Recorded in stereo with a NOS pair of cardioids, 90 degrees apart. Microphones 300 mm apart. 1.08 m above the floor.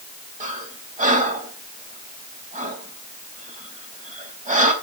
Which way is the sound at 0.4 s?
25° right.